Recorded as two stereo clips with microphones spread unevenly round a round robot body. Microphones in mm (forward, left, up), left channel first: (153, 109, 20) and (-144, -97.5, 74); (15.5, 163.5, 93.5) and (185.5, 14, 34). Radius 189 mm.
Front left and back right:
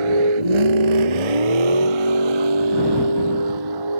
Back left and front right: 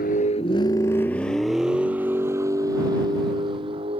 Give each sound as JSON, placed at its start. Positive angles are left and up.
{"t": 0.0, "sound": "a vehicle", "azimuth_deg": -155}